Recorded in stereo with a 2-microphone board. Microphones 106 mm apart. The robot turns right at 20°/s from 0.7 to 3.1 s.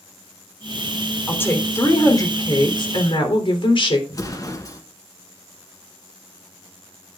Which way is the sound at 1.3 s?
20° left.